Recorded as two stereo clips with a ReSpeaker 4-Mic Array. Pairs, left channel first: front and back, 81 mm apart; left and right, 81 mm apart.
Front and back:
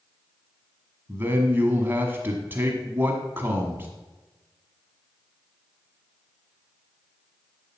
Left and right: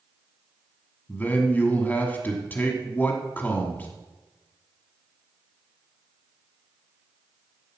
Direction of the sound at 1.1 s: 140° left.